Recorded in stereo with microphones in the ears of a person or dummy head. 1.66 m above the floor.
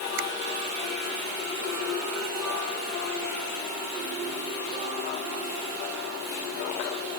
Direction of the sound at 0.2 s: 70° right (ahead or behind).